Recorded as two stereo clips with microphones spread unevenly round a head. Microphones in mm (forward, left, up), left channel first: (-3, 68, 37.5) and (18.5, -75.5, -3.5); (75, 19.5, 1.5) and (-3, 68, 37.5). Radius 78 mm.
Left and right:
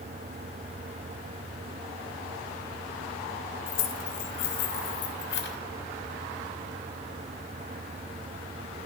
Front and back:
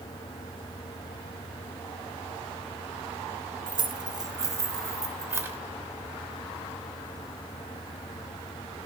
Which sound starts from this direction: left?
Keys jangling, at 3.7 s.